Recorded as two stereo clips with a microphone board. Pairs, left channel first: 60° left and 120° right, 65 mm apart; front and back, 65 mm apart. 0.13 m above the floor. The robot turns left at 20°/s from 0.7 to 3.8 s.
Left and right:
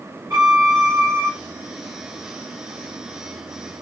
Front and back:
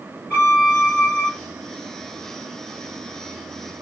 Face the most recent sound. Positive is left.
turn(degrees=-125)